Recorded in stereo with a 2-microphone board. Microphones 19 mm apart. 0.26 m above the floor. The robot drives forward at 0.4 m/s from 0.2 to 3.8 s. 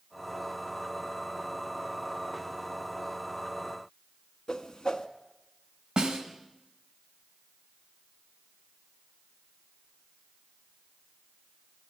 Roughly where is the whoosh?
Left.